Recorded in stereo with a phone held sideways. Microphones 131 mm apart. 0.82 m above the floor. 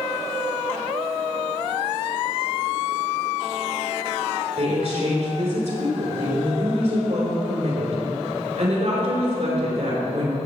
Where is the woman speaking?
65° right (ahead or behind), 4 m.